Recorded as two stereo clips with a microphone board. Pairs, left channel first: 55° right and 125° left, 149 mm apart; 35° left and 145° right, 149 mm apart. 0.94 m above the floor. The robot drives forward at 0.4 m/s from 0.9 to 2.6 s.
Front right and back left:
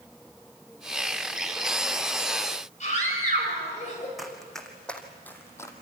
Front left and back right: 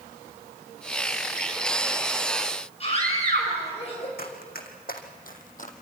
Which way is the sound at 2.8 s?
15° right.